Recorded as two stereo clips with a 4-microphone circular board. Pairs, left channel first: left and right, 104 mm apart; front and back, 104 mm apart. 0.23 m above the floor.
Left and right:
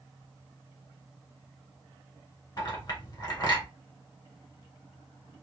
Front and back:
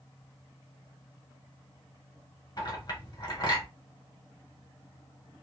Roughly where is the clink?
Ahead left.